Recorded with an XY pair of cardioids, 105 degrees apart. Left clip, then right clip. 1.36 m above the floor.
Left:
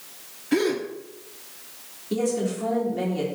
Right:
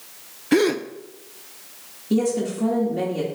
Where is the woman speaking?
60° right, 2.5 m.